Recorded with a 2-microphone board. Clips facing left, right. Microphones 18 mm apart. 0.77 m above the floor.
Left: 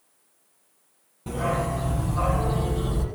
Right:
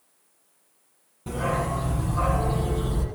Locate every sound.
1.3 s a dog barking: 15° left (ahead or behind), 4.5 m; by 3.0 s 25° left (ahead or behind), 5.5 m